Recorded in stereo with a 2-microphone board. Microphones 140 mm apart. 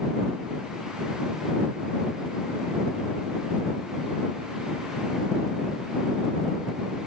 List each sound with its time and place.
Only background noise.